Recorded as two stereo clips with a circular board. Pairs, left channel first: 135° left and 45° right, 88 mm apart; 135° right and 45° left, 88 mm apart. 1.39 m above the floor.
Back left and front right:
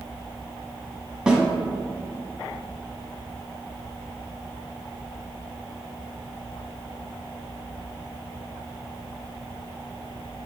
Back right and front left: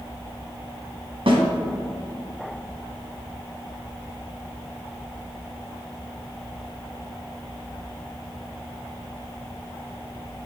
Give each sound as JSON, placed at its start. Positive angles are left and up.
{"t": 1.3, "sound": "a snare drum", "azimuth_deg": 35, "distance_m": 1.4}